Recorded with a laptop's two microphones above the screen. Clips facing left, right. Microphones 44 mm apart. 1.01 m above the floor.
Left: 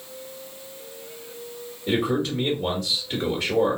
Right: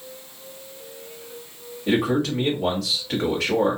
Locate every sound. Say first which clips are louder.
1.9 s a man speaking: right 2 dB; 85° right, 1.3 m